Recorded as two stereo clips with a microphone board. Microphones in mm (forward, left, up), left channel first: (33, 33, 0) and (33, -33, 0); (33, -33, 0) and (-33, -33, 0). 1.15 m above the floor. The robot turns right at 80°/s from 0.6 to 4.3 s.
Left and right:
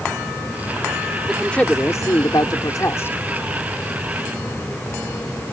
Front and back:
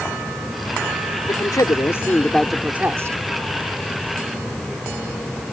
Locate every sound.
1.3 s a man speaking: 5° right; by 3.2 s 145° left